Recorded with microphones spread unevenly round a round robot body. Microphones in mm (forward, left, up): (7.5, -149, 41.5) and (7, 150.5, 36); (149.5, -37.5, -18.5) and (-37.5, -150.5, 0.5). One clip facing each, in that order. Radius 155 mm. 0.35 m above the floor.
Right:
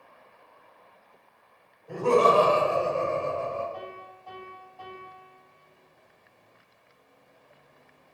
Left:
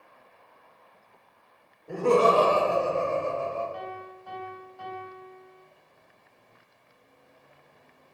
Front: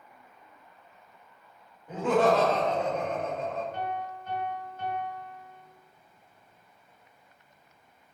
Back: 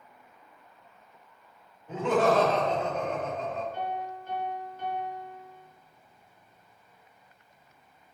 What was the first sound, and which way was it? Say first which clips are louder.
Laughter: even, front 1 dB; 90° left.